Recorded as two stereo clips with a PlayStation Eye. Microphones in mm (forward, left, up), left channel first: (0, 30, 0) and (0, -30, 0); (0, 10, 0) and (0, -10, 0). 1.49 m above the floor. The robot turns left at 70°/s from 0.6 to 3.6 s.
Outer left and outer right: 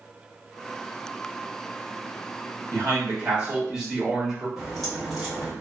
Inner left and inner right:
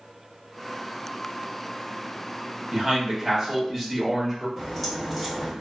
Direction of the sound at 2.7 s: 110° right.